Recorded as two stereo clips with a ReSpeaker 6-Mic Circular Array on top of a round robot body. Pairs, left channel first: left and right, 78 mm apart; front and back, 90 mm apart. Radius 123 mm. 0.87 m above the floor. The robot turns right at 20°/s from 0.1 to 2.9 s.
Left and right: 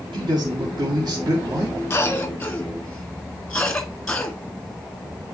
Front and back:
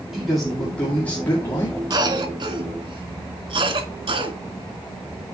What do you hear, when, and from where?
0.1 s a man speaking: 95° right, 2.0 m; by 1.8 s 60° right, 2.0 m
1.9 s a cough: 150° left, 2 m; by 4.4 s 170° left, 2 m